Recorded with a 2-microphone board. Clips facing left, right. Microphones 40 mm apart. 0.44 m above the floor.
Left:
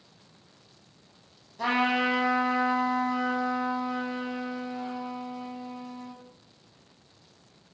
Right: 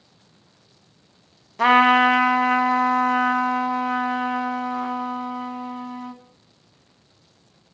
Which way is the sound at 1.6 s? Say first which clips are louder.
Right 11 dB; 70° right (ahead or behind).